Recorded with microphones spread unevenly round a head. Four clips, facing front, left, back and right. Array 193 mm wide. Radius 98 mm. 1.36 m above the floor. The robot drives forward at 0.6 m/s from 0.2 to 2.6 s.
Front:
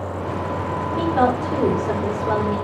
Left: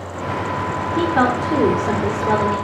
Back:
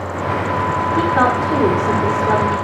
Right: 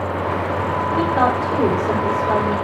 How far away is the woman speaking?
About 3 m.